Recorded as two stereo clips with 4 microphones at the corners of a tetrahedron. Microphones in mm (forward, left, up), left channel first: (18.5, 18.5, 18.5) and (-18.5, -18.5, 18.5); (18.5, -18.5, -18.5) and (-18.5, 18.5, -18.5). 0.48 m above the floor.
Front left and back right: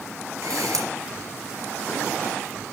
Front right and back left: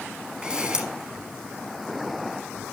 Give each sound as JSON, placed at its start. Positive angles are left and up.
{"t": 0.4, "sound": "a camera shutter", "azimuth_deg": -155, "distance_m": 3.5}